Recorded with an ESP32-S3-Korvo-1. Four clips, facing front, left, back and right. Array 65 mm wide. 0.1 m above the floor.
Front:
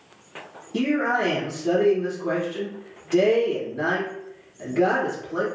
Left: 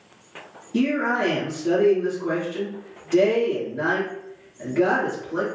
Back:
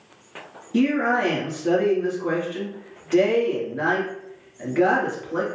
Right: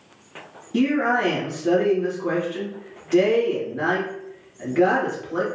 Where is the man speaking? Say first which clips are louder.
Right 2 dB, back 2 dB; 160° right, 1.4 m.